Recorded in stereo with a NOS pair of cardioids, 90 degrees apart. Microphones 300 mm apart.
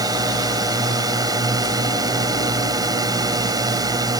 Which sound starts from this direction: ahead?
A drone, at 0.0 s.